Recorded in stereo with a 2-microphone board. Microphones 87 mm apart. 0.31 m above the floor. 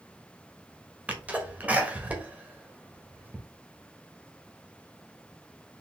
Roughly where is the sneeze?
Centre.